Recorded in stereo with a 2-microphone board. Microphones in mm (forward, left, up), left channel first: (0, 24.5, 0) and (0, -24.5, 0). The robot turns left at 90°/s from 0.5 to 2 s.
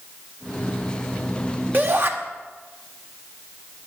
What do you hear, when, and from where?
1.7 s a shout: 45° right (ahead or behind), 1.8 m; by 2.1 s 50° right (ahead or behind), 1.8 m